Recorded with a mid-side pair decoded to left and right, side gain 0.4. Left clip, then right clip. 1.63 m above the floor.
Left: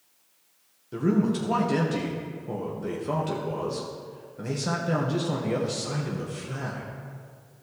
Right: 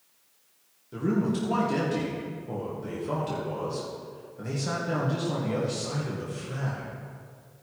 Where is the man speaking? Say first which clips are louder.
Left 2 dB; 35° left, 1.7 m.